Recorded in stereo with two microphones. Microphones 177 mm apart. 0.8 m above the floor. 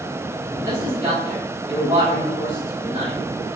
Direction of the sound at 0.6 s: 15° right (ahead or behind).